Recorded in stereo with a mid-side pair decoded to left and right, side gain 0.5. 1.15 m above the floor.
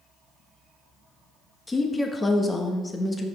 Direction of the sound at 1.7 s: 20° left.